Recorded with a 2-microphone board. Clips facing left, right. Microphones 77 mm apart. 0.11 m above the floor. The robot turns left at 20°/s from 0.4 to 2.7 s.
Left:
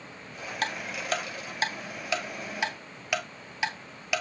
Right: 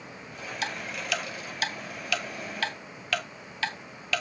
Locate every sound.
0.6 s ticking: 50° left (ahead or behind), 0.8 m; by 4.2 s 15° left (ahead or behind), 0.8 m